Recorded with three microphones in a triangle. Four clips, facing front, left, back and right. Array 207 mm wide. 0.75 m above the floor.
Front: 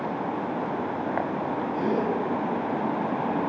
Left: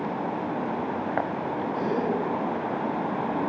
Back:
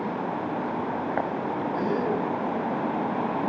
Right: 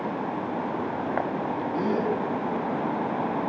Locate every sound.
1.7 s a gasp: 95° right, 3 m